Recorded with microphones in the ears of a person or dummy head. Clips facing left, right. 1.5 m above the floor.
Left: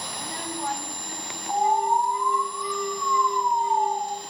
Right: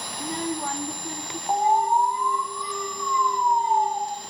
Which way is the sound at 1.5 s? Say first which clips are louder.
Right 1 dB; 35° right (ahead or behind).